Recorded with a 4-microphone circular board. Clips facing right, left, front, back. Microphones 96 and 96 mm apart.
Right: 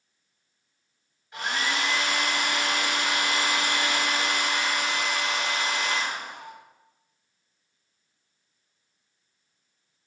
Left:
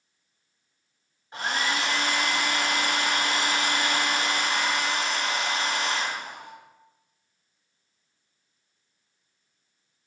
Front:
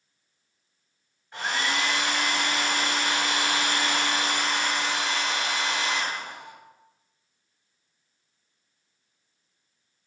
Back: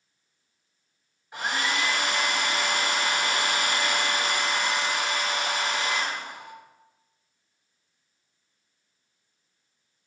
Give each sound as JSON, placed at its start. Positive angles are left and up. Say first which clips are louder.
{"t": 1.3, "sound": "a hair dryer", "louder": "left 1 dB, even", "azimuth_deg": 110, "distance_m": 1.0}